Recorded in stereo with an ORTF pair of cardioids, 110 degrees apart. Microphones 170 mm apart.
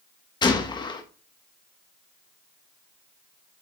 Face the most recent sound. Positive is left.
turn(degrees=25)